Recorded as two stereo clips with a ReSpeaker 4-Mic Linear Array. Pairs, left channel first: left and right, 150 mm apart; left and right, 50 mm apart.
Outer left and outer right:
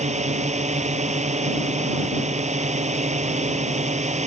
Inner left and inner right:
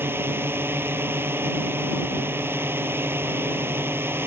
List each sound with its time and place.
0.0 s a drone: 50° right (ahead or behind)